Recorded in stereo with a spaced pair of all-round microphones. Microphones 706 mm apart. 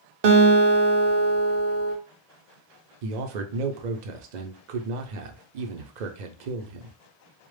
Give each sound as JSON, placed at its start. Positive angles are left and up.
{"t": 0.2, "sound": "a guitar", "side_deg": -70, "distance_m": 0.6}
{"t": 3.0, "sound": "a man speaking", "side_deg": -80, "distance_m": 0.6}